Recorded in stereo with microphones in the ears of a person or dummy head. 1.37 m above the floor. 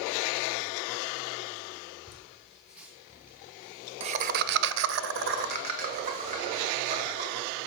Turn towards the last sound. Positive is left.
turn(degrees=-30)  # may be behind; listen again after turning